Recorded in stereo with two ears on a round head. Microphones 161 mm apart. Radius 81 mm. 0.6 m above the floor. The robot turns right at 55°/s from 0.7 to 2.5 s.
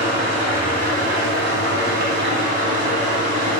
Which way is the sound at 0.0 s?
145° right.